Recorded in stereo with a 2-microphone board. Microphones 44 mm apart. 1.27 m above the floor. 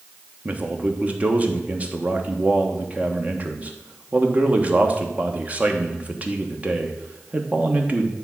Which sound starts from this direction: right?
A man speaking, at 0.5 s.